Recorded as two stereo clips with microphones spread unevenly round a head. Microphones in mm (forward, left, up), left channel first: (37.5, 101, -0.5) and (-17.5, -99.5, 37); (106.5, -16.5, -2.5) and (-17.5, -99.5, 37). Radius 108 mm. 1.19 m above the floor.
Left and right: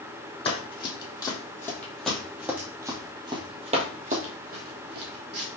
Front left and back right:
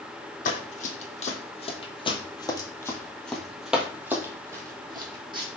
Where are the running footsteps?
5° left, 1.9 m; by 5.6 s 110° right, 2 m.